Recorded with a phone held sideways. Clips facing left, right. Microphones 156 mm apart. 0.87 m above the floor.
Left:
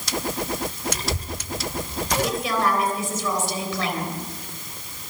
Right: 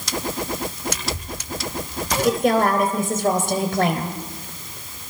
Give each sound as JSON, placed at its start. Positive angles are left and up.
{"t": 0.9, "sound": "a child speaking", "side_deg": 35, "distance_m": 3.0}
{"t": 2.2, "sound": "a woman speaking", "side_deg": -55, "distance_m": 3.5}